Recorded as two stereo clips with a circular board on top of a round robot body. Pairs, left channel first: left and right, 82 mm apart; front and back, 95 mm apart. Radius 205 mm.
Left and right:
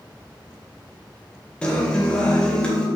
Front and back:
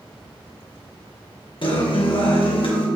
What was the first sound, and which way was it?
A guitar, 15° left.